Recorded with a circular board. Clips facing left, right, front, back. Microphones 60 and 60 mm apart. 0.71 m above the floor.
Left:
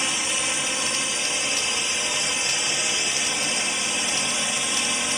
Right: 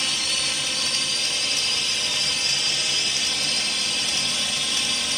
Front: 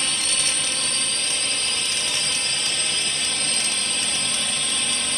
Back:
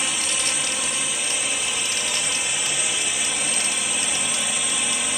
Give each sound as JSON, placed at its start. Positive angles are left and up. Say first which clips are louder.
{"t": 0.0, "sound": "a drone", "louder": "left 1 dB, back 1 dB", "azimuth_deg": 120}